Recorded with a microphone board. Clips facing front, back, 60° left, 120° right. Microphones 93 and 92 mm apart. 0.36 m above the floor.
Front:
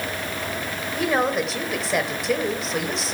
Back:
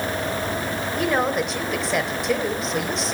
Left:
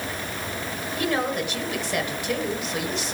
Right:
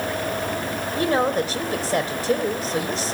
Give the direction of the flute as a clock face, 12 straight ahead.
No flute in this recording.